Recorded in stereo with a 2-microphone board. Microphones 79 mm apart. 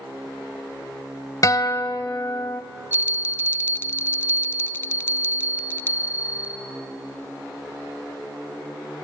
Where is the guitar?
50° left (ahead or behind), 0.8 m.